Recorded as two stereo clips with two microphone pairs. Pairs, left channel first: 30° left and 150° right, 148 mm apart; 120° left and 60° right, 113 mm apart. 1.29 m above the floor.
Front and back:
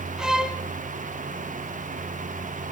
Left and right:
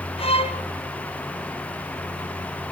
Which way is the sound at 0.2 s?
125° left.